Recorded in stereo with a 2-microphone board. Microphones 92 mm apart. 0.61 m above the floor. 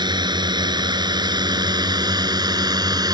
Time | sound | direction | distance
0.0 | a drone | 50° right (ahead or behind) | ?